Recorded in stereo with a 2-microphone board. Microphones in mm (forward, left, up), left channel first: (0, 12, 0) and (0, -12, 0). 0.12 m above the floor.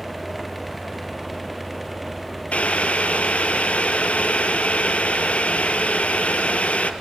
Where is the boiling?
65° left (ahead or behind), 1.7 m.